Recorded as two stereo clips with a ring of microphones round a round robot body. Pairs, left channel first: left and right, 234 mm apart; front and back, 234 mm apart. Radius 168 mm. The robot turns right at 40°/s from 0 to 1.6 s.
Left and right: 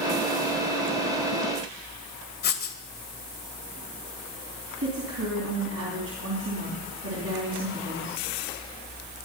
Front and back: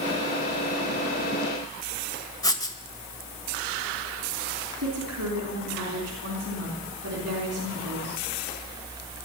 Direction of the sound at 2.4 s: 70° left.